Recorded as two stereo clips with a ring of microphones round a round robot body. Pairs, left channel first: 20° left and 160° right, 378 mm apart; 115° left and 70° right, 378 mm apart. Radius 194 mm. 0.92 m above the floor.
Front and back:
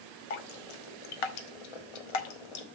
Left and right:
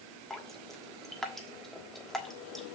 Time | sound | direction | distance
0.3 | dripping | 25° left | 1.2 m